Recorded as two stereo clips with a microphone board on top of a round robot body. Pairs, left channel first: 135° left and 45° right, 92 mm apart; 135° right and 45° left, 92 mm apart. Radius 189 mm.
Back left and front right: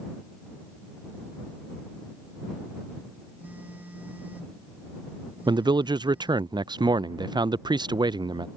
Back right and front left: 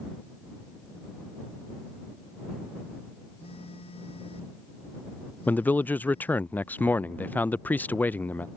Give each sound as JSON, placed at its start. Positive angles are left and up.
{"t": 3.4, "sound": "a phone buzzing", "azimuth_deg": -120}
{"t": 5.5, "sound": "a man speaking", "azimuth_deg": -65}